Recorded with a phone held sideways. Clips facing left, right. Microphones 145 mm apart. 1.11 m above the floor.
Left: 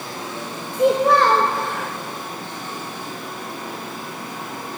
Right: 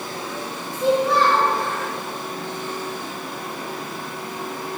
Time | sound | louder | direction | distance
0.7 | a child speaking | left 3 dB | 65° left (ahead or behind) | 0.6 m